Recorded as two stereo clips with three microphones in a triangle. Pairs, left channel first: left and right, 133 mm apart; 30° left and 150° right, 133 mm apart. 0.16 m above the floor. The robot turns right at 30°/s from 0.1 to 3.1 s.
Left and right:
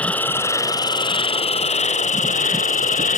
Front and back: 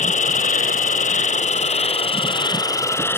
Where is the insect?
10° left; by 3.2 s 100° left.